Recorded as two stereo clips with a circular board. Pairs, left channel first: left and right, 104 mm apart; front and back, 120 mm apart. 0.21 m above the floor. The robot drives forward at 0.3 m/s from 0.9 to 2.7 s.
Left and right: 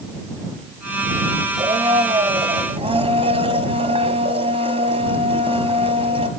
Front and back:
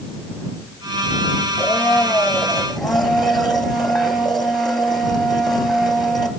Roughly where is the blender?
Right.